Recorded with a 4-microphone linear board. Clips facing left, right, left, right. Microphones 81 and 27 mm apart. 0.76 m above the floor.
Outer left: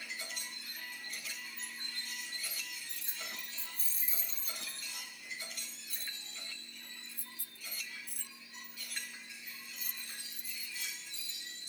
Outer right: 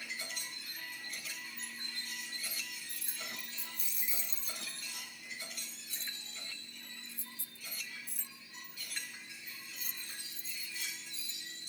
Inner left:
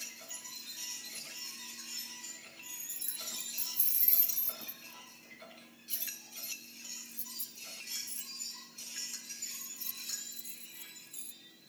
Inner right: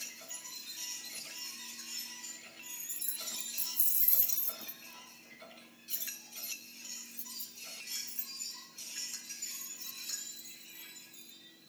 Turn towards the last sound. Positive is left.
turn(degrees=70)  # may be behind; listen again after turning